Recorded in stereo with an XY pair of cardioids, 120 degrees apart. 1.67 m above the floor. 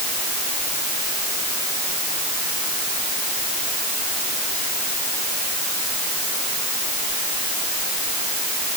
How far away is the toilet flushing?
I don't hear a toilet flushing.